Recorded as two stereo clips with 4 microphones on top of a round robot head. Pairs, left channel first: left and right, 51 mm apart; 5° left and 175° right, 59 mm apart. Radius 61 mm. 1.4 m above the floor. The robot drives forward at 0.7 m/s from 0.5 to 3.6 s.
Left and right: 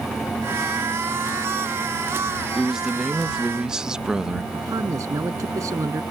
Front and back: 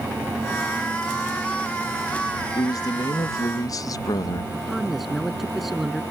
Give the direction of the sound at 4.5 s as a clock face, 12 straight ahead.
3 o'clock.